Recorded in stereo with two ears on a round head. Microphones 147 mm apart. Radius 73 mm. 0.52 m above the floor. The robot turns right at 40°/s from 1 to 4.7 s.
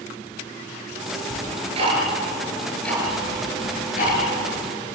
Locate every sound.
1.3 s ticking: 55° right (ahead or behind), 8 m; by 4.2 s 60° left (ahead or behind), 8 m